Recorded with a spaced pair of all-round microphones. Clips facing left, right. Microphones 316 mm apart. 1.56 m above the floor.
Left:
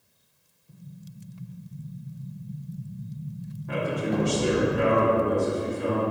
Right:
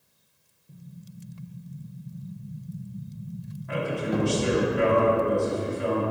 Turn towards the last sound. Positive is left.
turn(degrees=45)  # may be behind; listen again after turning